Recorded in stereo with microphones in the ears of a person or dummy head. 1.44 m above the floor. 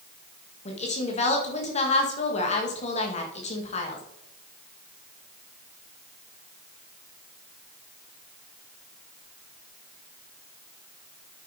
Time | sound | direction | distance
0.7 | a woman speaking | 40° left (ahead or behind) | 1.9 m